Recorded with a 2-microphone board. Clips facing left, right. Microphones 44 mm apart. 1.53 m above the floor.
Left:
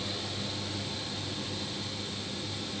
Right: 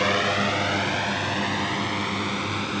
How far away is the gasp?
I don't hear a gasp.